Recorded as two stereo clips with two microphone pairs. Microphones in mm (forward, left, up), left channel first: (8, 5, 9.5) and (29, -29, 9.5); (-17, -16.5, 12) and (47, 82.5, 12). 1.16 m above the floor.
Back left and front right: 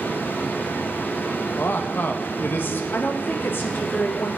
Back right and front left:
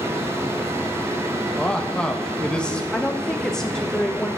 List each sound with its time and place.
1.6 s a man speaking: 155° left, 1.2 m
2.9 s a woman speaking: 150° left, 0.9 m